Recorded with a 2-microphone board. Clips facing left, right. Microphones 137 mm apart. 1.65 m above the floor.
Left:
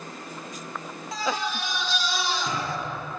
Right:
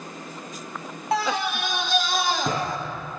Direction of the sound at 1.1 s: 60° right (ahead or behind).